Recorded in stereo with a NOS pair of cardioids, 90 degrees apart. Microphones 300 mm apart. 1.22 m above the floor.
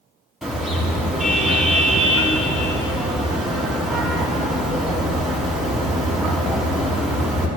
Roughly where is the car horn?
Ahead.